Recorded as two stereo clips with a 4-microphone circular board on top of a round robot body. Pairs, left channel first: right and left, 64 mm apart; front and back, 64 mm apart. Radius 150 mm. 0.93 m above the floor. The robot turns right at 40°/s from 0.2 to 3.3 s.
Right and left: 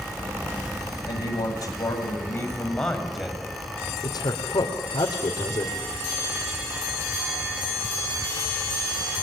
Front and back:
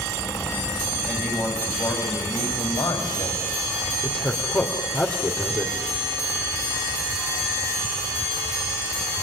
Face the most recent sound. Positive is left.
turn(degrees=-60)